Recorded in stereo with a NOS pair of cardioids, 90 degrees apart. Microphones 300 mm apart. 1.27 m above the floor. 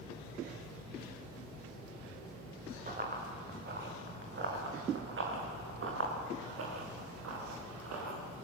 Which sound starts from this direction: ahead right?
Running footsteps, at 2.9 s.